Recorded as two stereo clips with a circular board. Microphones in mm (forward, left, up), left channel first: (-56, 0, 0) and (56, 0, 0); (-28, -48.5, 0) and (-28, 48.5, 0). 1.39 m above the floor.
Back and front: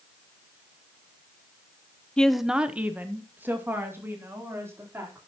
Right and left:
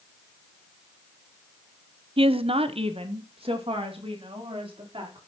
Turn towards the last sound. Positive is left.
turn(degrees=70)